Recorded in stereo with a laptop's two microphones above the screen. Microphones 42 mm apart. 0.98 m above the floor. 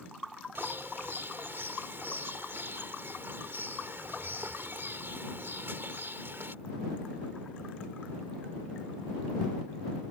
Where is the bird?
65° right (ahead or behind).